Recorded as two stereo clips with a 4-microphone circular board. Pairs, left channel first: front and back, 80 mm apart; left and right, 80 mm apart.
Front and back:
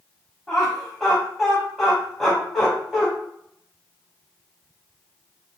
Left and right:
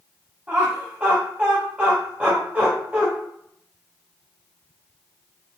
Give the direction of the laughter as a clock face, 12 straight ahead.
3 o'clock.